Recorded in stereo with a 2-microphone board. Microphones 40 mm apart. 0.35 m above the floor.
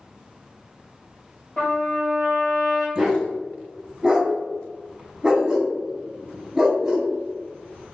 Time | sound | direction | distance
1.6 | a trumpet | 20° left (ahead or behind) | 1.5 m
3.0 | a dog barking | 20° right (ahead or behind) | 0.6 m